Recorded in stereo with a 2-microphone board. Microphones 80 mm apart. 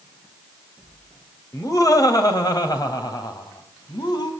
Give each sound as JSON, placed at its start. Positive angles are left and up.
{"t": 1.5, "sound": "laughter", "side_deg": 45, "distance_m": 3.0}